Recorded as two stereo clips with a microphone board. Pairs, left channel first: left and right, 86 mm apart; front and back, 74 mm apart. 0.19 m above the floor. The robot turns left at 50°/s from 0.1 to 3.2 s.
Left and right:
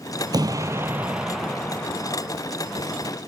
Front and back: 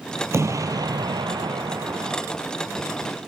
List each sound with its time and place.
0.3 s an explosion: 130° right, 1.2 m; by 2.2 s 140° left, 1.2 m